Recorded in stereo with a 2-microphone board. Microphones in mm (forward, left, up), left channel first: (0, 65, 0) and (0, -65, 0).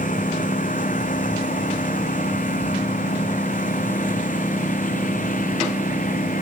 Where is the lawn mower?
85° left; by 6.4 s 90° left.